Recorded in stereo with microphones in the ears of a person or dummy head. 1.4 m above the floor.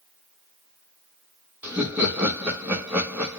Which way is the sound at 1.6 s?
10° right (ahead or behind).